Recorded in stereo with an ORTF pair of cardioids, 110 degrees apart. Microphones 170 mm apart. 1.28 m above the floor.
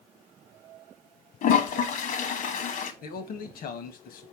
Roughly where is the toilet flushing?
Ahead left.